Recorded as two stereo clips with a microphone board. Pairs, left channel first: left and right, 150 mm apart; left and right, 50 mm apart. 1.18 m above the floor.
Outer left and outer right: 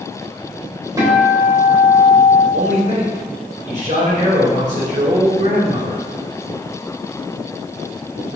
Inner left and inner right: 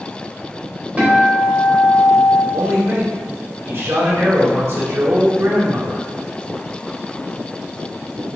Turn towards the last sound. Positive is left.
turn(degrees=-55)  # may be behind; listen again after turning